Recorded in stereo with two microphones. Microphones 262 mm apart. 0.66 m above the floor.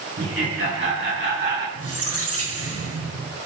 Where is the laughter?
55° right (ahead or behind), 5 m; by 1.6 s 40° right (ahead or behind), 4.5 m.